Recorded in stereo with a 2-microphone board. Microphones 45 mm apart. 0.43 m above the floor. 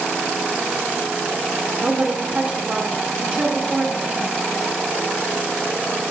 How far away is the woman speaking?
About 1.4 m.